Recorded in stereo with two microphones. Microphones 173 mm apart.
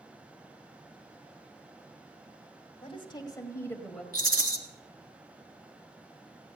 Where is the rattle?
60° right (ahead or behind), 1.6 m.